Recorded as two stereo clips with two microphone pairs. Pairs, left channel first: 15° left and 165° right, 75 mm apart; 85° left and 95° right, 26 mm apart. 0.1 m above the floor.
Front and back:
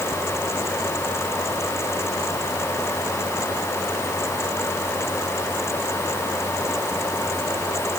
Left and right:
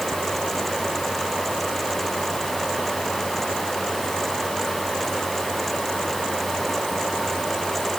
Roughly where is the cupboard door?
I don't hear a cupboard door.